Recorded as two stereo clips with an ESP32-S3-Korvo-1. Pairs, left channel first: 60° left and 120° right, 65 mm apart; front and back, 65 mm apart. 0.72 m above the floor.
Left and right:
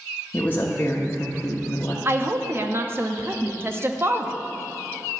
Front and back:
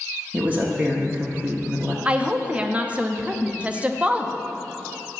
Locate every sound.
0.3 s a woman speaking: 120° left, 0.9 m
2.0 s a woman speaking: 125° right, 0.6 m